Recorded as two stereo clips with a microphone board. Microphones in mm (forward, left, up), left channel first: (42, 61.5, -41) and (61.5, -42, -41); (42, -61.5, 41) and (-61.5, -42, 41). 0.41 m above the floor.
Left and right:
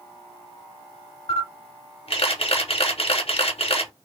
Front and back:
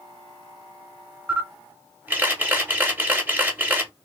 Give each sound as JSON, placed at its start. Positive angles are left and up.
{"t": 1.3, "sound": "a camera shutter", "azimuth_deg": 100, "distance_m": 0.7}